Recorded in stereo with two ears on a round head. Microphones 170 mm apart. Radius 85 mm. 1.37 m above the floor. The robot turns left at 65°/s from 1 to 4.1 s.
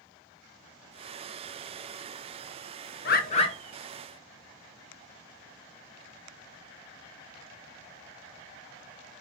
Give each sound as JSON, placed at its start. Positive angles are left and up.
{"t": 3.0, "sound": "a bird", "azimuth_deg": 55, "distance_m": 0.7}